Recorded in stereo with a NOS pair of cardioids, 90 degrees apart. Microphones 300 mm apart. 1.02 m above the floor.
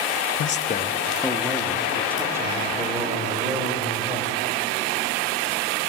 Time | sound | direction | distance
0.4 | a man speaking | 50° left | 0.7 m